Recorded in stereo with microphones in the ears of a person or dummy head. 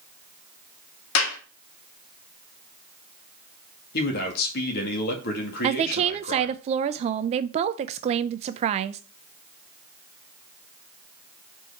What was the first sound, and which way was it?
A clap, 80° left.